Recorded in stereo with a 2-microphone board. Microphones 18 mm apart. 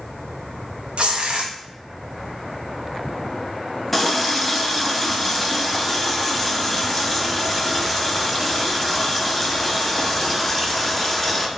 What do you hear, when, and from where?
1.0 s tearing paper: 65° right (ahead or behind), 0.7 m
3.9 s a running tap: 10° left (ahead or behind), 0.6 m